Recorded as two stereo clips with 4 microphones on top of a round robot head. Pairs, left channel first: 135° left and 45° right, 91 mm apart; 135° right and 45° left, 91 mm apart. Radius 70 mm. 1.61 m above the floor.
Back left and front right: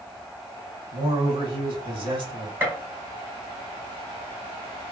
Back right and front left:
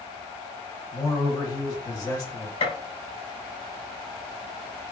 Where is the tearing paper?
No tearing paper in this recording.